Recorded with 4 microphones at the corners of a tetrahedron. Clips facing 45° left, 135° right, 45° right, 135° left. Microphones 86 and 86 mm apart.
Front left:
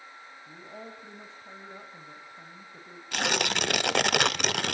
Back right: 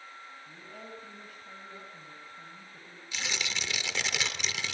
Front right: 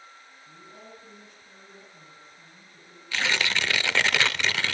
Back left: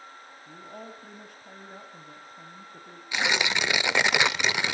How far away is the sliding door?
I don't hear a sliding door.